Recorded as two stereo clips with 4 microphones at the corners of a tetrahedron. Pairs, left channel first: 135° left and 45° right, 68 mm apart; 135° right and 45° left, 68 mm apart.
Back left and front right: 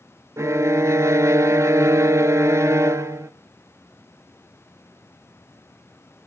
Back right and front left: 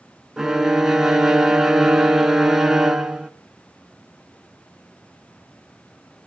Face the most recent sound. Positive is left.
turn(degrees=-35)